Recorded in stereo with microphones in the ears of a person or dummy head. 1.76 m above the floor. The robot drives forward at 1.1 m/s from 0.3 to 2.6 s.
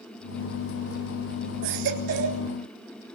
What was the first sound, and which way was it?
A baby crying, 70° right (ahead or behind).